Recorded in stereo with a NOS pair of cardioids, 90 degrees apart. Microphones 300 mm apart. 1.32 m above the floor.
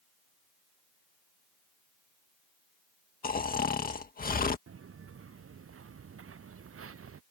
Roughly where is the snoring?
Ahead left.